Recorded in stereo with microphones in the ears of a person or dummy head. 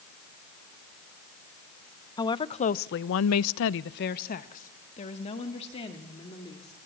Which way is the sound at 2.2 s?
20° left (ahead or behind).